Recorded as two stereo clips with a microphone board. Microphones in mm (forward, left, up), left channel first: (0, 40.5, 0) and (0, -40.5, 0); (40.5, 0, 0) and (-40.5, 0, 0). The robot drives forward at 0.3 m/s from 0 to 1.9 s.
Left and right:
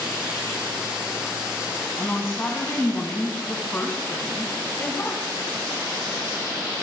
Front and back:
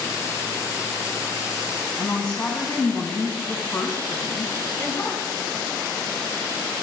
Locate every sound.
2.0 s a woman speaking: 60° left, 1.4 m